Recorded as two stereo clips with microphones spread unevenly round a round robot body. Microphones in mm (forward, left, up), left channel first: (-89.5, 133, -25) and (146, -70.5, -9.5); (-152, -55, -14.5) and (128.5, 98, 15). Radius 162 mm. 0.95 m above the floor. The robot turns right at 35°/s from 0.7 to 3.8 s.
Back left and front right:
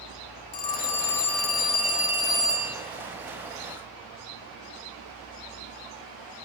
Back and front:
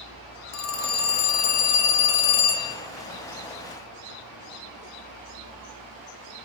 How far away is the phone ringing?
About 1.2 m.